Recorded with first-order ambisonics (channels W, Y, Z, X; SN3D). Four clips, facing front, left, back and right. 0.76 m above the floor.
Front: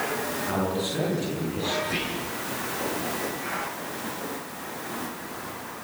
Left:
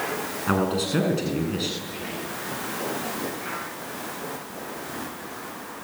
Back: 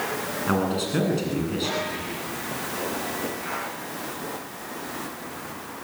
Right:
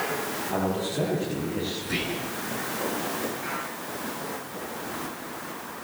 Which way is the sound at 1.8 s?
60° right.